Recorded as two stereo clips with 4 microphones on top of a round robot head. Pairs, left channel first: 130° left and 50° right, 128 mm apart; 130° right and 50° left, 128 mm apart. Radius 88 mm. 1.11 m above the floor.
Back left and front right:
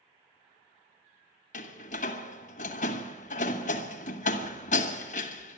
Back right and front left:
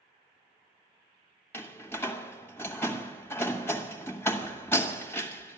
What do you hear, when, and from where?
1.5 s a door slam: 155° left, 1.2 m